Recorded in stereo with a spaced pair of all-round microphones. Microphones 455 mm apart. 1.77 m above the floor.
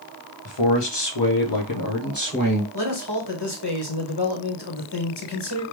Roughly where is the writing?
No writing in this recording.